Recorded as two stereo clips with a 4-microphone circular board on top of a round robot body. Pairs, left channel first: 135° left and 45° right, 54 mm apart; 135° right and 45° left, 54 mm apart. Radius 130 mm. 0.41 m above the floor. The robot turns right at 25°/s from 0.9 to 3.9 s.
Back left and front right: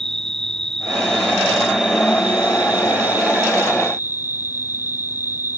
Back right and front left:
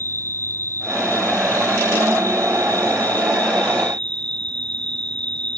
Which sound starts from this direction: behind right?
An insect, at 0.0 s.